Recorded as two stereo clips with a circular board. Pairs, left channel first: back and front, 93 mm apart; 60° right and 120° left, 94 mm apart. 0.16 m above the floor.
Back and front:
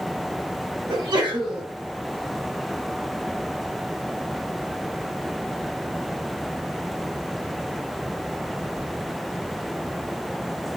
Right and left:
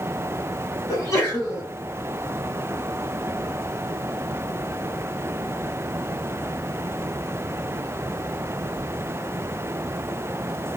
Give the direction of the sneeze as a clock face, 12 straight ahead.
12 o'clock.